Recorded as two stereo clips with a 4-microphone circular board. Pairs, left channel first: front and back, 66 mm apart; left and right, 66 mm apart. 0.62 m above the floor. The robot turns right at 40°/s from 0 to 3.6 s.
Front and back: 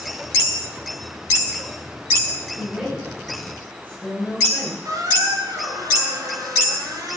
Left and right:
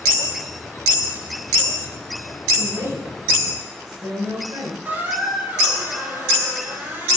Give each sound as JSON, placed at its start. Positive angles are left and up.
{"t": 2.6, "sound": "a woman speaking", "azimuth_deg": -110, "distance_m": 4.0}
{"t": 4.8, "sound": "a squeak", "azimuth_deg": -150, "distance_m": 3.5}